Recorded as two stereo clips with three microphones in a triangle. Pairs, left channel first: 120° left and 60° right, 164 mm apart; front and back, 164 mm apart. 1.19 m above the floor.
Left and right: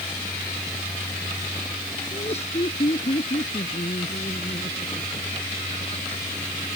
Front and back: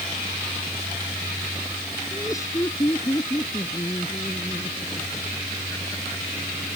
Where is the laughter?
70° left.